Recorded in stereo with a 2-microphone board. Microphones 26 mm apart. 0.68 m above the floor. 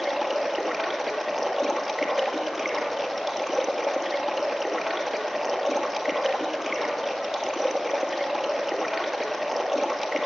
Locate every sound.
0.0 s running water: 5° right (ahead or behind), 1.3 m